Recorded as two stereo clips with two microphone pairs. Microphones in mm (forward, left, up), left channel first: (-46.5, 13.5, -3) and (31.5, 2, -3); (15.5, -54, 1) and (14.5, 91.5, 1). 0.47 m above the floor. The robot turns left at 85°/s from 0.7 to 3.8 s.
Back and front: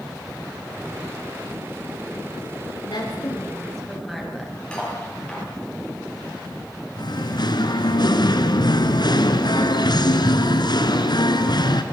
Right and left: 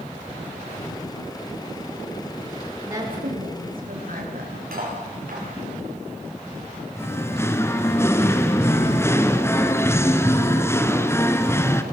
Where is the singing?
165° right, 1.5 m.